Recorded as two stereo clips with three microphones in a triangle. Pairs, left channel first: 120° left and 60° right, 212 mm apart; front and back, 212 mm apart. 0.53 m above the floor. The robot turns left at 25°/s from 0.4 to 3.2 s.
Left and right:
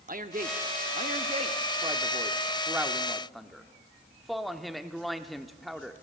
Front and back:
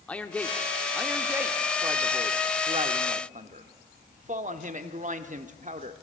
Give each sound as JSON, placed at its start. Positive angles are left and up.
{"t": 0.1, "sound": "a man speaking", "azimuth_deg": -80, "distance_m": 0.8}